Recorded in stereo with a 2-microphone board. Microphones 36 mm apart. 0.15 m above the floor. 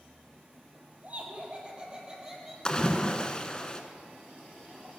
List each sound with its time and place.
1.0 s laughter: 40° right (ahead or behind), 4 m; by 2.5 s 10° right (ahead or behind), 4 m
2.6 s a splash: 25° left (ahead or behind), 1.2 m